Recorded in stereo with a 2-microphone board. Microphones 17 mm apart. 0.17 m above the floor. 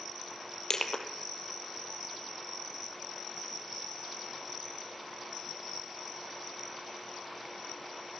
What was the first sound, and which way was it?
Crushing, 35° left (ahead or behind).